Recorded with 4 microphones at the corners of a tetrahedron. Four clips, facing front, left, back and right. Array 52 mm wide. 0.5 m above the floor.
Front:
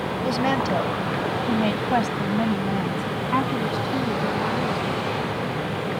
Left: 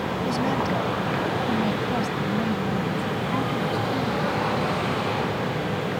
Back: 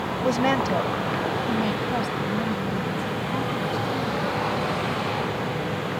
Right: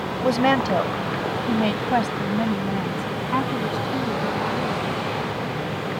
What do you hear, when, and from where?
0.2 s a woman speaking: 110° right; by 5.2 s 30° right